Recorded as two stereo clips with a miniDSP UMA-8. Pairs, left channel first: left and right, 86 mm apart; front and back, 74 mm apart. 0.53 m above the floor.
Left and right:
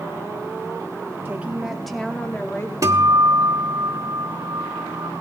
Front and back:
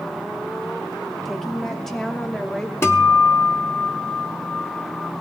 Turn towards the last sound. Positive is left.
turn(degrees=-50)